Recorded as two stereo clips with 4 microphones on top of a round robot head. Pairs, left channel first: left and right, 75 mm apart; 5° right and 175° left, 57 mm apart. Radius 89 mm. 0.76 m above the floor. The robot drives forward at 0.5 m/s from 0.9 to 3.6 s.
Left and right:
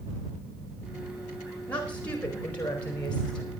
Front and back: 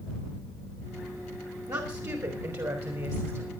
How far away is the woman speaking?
About 4 m.